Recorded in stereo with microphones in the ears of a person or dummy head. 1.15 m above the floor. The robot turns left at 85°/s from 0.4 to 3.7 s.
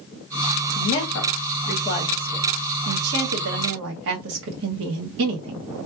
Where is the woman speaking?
45° left (ahead or behind), 1.1 m; by 5.7 s 65° right (ahead or behind), 1.1 m.